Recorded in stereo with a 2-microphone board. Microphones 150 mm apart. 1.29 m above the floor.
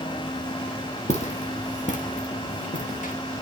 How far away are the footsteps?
About 2.0 m.